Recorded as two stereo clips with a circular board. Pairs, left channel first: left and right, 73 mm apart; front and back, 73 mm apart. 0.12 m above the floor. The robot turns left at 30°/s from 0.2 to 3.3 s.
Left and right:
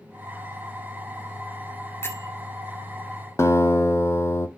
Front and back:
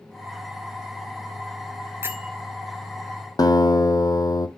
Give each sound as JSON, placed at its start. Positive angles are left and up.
{"t": 2.0, "sound": "a bell", "azimuth_deg": 135, "distance_m": 1.2}
{"t": 3.4, "sound": "a guitar", "azimuth_deg": 35, "distance_m": 0.8}